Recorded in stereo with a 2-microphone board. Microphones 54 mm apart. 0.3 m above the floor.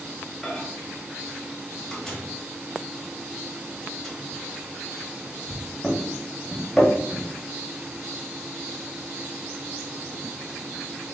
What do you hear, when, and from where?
0.4 s a microwave: 10° left (ahead or behind), 1.2 m